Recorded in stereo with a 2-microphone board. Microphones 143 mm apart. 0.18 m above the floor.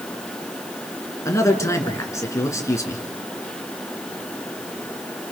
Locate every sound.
1.2 s a man speaking: 20° left (ahead or behind), 2.5 m